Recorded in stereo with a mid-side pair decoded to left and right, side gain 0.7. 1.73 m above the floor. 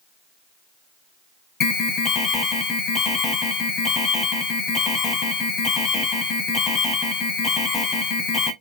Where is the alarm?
35° left, 0.7 m.